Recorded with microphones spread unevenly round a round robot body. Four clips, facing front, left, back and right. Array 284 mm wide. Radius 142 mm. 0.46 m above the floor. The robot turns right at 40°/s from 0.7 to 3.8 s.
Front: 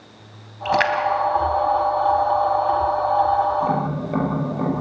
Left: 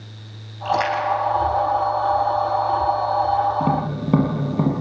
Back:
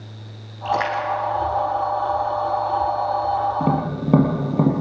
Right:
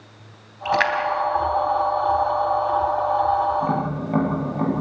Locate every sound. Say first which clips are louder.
0.7 s a splash: left 1 dB, front 2 dB; 5° right, 4 m; by 2.8 s 80° left, 4 m
3.6 s tapping: left 2 dB, even; 130° left, 6 m; by 4.7 s 135° left, 6 m